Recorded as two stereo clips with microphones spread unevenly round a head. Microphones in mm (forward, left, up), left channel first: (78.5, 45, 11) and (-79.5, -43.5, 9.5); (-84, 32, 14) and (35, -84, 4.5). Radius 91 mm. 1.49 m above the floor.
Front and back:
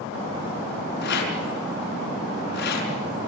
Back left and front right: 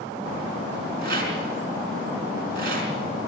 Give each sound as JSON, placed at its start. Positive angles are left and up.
{"t": 1.0, "sound": "a rattle", "azimuth_deg": 0, "distance_m": 4.5}